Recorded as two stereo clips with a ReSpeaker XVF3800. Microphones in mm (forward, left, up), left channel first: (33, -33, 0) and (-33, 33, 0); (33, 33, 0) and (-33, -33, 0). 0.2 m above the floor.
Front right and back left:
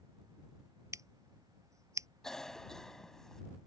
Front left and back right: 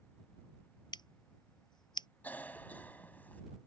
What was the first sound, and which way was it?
Scissors, 80° left.